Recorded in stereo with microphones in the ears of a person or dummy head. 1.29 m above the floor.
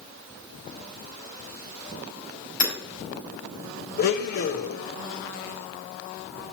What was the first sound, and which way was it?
Hammering, 60° left (ahead or behind).